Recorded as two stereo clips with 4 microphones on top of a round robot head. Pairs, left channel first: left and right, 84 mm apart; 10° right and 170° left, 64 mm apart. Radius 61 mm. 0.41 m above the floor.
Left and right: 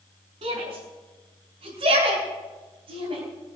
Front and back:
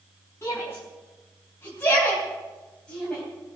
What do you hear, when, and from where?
0.4 s a shout: 70° right, 4.5 m; by 3.2 s 95° right, 3.5 m